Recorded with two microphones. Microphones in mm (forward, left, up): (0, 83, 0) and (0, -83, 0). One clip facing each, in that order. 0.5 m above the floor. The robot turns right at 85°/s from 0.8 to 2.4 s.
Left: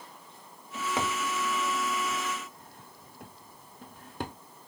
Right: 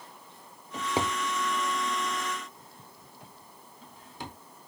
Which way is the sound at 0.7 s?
40° right (ahead or behind).